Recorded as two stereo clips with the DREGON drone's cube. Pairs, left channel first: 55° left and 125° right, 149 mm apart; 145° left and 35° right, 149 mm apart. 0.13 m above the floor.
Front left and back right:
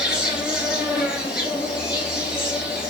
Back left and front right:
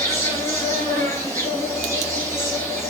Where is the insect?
165° left, 1.2 m.